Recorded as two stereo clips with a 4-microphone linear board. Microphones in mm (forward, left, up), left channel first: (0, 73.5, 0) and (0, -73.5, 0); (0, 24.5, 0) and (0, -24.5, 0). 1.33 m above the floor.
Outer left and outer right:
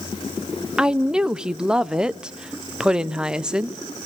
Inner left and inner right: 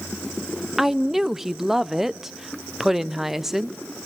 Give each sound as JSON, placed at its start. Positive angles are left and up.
{"t": 0.8, "sound": "a woman speaking", "side_deg": -5, "distance_m": 0.5}